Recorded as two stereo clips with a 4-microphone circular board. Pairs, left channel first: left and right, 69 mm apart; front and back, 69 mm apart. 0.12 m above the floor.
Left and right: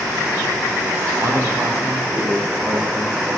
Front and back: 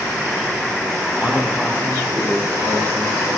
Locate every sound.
1.2 s a man speaking: 120° right, 3 m; by 3.3 s 155° right, 3 m